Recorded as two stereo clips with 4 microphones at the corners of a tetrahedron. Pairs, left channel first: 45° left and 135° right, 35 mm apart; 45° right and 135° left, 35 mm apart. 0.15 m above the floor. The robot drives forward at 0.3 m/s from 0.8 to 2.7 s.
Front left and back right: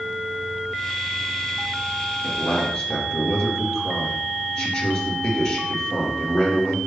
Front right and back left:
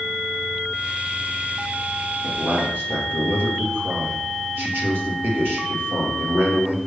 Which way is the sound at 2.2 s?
110° left.